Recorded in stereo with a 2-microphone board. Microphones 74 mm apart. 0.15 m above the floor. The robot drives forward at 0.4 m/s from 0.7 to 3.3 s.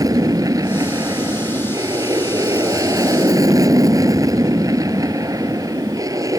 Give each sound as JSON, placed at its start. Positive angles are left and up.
{"t": 0.0, "sound": "an aircraft", "side_deg": -50}